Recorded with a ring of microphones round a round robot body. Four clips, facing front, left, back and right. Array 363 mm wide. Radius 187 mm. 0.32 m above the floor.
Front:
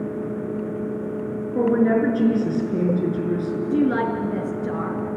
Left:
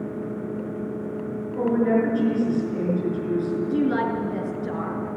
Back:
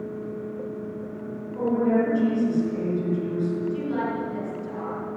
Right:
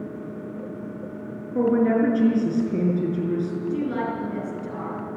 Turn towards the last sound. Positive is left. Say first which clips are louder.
# left 5 dB, front 6 dB
turn(degrees=15)